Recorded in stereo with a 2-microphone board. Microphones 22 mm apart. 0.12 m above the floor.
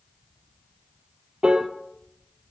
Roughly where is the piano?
Right.